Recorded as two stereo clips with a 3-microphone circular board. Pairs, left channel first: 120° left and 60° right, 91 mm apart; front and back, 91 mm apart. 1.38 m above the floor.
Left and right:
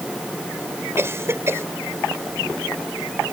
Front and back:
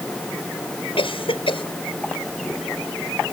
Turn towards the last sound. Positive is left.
turn(degrees=0)